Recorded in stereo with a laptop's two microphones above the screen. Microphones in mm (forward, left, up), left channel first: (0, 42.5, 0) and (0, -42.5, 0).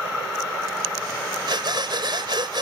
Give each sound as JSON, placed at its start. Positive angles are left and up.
{"t": 1.5, "sound": "breathing", "side_deg": -60}